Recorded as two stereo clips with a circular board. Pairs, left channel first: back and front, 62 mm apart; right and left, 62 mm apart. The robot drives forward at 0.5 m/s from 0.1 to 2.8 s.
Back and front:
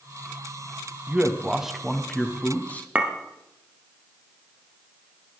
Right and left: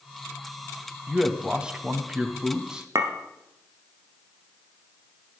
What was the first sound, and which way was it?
A man speaking, 30° left.